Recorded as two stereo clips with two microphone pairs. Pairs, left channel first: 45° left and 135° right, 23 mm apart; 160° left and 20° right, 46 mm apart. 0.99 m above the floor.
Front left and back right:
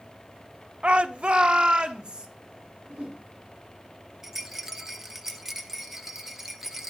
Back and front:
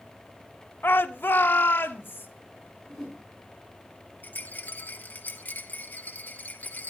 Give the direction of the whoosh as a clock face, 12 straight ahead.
4 o'clock.